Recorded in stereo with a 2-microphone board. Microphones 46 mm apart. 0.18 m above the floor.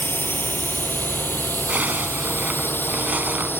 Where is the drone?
50° left (ahead or behind).